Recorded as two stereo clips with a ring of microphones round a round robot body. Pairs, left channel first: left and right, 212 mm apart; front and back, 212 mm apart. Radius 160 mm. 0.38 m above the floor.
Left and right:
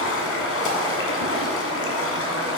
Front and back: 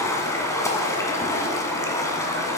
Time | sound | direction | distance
0.0 | running water | 75° left | 1.7 m